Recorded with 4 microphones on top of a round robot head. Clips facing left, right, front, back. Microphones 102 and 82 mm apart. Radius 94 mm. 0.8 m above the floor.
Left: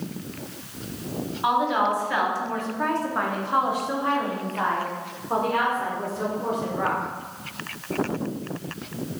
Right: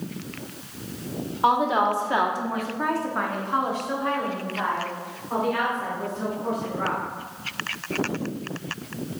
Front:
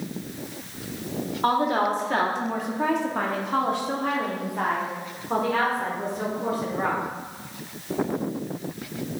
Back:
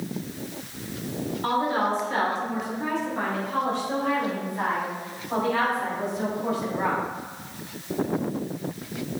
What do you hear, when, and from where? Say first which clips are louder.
1.4 s a woman speaking: right 2 dB, front 2 dB; 40° right, 1.7 m; by 7.0 s 45° left, 3.5 m